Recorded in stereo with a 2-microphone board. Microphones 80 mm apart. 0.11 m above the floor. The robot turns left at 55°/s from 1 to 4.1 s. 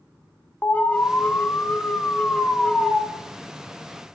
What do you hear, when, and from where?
0.6 s an alarm: 20° left (ahead or behind), 0.9 m; by 3.0 s 5° left (ahead or behind), 0.9 m